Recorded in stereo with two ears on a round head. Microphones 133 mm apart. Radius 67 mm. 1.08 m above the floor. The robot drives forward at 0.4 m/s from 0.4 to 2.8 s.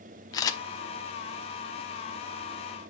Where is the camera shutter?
25° left (ahead or behind), 0.9 m.